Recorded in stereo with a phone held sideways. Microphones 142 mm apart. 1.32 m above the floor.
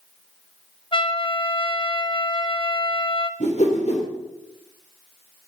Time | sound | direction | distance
0.9 | a trumpet | 35° left (ahead or behind) | 0.9 m
3.4 | a whoosh | 55° left (ahead or behind) | 3 m